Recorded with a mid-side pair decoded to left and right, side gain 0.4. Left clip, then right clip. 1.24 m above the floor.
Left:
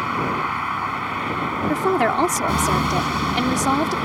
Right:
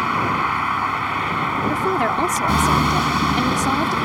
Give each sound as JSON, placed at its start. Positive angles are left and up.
{"t": 0.0, "sound": "a vehicle", "azimuth_deg": -30}
{"t": 1.7, "sound": "a woman speaking", "azimuth_deg": 25}